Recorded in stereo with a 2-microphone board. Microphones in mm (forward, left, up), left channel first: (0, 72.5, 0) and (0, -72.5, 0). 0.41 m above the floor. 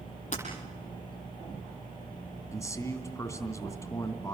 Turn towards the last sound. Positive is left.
turn(degrees=20)  # may be behind; listen again after turning